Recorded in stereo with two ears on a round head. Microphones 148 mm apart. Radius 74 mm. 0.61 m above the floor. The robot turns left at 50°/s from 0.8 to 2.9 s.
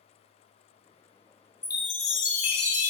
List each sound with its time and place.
1.6 s a chime: 160° left, 0.6 m; by 2.9 s 95° left, 0.6 m